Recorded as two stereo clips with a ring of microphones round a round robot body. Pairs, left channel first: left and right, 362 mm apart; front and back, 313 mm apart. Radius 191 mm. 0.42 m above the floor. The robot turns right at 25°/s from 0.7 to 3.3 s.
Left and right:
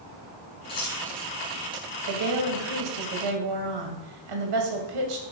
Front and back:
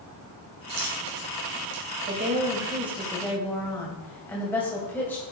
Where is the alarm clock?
No alarm clock in this recording.